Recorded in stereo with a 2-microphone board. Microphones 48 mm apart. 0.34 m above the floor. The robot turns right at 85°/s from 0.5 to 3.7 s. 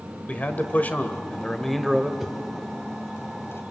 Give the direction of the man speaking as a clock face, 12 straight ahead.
10 o'clock.